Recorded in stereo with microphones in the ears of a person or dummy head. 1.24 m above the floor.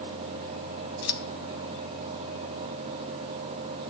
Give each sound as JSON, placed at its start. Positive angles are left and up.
{"t": 1.0, "sound": "scissors", "side_deg": 65, "distance_m": 2.5}